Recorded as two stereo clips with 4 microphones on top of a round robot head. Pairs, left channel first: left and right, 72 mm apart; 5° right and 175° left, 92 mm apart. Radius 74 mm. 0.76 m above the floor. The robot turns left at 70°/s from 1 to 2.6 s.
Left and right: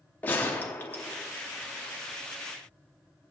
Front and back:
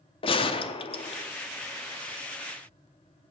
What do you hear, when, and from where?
0.2 s a gunshot: 20° left, 0.7 m; by 1.2 s 5° left, 0.7 m